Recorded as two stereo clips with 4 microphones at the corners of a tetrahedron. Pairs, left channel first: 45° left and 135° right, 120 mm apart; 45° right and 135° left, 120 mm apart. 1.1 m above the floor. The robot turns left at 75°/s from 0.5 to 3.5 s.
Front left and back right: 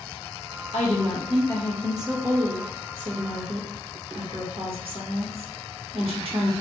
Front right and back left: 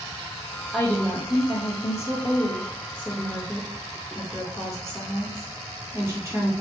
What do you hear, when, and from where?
0.7 s a woman speaking: 45° left, 1.7 m; by 6.5 s 160° right, 1.7 m